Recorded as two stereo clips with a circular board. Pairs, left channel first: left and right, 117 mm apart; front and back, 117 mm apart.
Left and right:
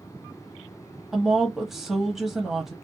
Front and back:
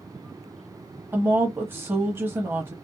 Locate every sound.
1.1 s a woman speaking: 170° right, 0.9 m